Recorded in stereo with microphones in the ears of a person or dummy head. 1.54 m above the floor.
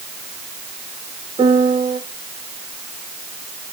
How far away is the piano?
About 1.4 m.